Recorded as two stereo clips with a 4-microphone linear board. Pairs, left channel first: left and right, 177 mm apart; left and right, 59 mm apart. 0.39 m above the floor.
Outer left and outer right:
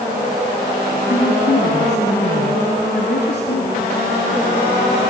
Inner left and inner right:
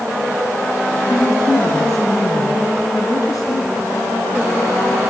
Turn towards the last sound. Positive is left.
turn(degrees=75)  # may be behind; listen again after turning